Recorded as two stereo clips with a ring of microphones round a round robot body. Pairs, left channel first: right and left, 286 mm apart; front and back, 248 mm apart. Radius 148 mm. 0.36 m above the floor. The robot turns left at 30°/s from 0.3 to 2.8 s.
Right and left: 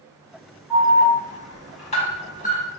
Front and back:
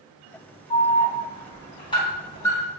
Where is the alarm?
15° right, 1.9 m; by 2.7 s 70° right, 1.9 m.